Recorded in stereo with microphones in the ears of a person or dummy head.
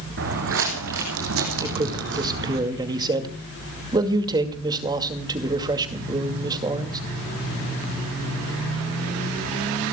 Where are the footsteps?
60° right (ahead or behind), 4 m; by 2.6 s 50° right (ahead or behind), 4.5 m.